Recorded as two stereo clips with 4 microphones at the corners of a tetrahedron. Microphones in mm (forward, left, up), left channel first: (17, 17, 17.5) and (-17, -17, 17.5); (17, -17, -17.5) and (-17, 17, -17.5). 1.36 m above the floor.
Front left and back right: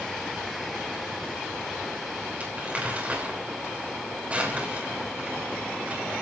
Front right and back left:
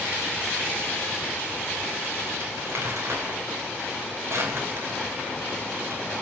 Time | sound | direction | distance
2.4 | crumpling | 165° left | 6.5 m